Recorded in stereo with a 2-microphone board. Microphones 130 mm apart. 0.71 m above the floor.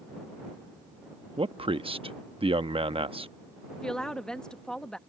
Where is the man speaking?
45° right (ahead or behind).